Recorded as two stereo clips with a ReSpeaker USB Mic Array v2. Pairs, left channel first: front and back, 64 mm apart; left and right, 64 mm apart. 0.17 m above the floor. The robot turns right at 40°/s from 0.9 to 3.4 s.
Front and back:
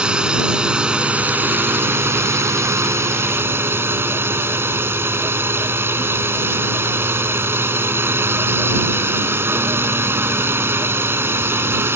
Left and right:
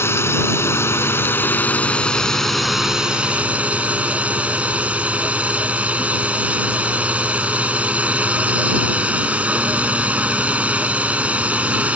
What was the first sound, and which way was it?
A drone, 110° left.